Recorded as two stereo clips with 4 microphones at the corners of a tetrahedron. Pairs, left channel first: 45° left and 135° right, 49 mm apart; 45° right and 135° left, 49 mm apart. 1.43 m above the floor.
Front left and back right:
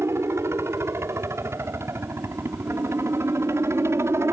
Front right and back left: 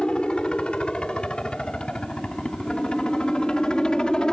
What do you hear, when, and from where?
0.0 s a helicopter: 115° right